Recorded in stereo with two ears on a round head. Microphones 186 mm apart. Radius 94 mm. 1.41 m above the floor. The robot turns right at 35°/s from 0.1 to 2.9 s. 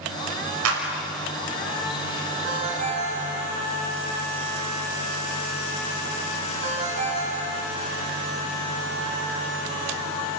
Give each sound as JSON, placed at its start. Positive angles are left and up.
{"t": 0.7, "sound": "a clap", "side_deg": -85, "distance_m": 5.5}
{"t": 2.4, "sound": "a ringtone", "side_deg": -55, "distance_m": 7.0}